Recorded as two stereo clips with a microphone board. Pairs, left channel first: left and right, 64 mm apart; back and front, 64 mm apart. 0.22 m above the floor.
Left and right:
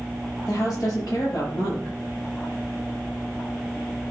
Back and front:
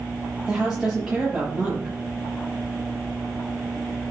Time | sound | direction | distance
0.5 | a woman speaking | 85° left | 5.5 m